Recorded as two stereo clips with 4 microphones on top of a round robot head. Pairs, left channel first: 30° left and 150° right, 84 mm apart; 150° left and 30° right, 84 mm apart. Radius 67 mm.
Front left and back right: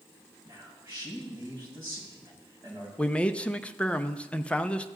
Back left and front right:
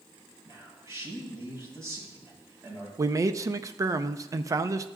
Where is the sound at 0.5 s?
90° right, 5 m.